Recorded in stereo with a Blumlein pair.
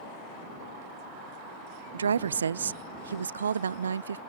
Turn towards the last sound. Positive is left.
turn(degrees=-70)